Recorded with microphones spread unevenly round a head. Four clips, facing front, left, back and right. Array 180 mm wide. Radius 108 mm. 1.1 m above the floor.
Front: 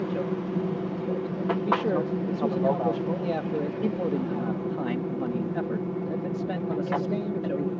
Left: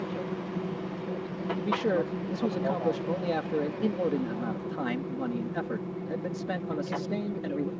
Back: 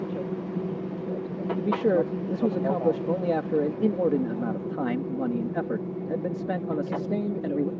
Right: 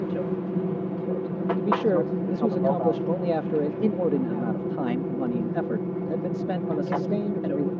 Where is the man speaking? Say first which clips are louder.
Right 5 dB, back 4 dB; 155° right.